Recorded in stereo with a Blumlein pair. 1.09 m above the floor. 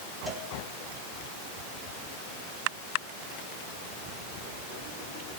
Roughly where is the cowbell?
Ahead.